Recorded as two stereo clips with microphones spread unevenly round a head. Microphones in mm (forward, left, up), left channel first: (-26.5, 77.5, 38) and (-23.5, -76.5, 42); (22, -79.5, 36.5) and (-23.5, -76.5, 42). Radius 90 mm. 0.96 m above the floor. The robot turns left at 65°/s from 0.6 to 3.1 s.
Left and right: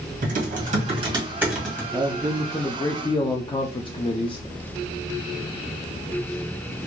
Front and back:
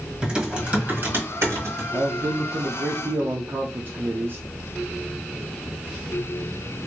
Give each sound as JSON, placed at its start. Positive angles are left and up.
{"t": 0.2, "sound": "typing on a keyboard", "azimuth_deg": -115, "distance_m": 1.8}
{"t": 1.9, "sound": "a man speaking", "azimuth_deg": -150, "distance_m": 0.5}